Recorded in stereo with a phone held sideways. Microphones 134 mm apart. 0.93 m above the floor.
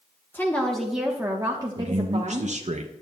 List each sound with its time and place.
0.3 s a woman speaking: 15° left (ahead or behind), 1.0 m; by 2.5 s 50° right (ahead or behind), 1.1 m
1.8 s a man speaking: 60° right (ahead or behind), 0.5 m